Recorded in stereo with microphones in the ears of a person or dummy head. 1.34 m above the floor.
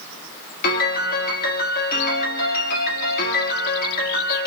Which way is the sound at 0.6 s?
50° left (ahead or behind).